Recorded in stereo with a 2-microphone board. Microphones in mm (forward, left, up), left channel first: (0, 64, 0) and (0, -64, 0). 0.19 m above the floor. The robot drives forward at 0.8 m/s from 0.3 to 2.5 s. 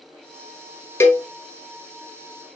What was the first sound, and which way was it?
A cowbell, 20° left (ahead or behind).